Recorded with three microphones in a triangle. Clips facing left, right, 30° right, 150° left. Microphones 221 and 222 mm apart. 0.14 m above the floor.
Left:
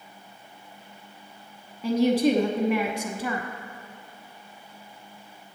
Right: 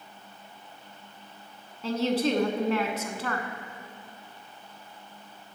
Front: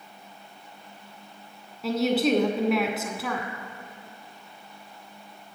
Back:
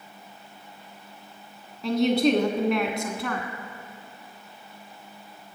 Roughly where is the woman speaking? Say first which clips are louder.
Left 5 dB, back 2 dB; ahead left.